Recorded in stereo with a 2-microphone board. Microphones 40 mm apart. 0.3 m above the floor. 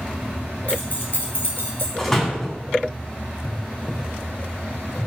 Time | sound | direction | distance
0.7 | keys jangling | 45° left (ahead or behind) | 3 m
2.0 | a door slam | 10° left (ahead or behind) | 1.4 m